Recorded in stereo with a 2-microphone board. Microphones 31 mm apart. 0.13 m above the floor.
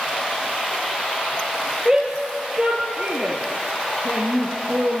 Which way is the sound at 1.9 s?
20° right (ahead or behind).